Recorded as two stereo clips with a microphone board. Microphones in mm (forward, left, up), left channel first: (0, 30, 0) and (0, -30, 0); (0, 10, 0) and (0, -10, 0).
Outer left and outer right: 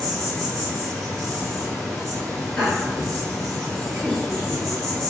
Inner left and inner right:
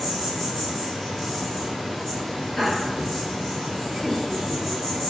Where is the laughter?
10° left (ahead or behind), 1.6 m.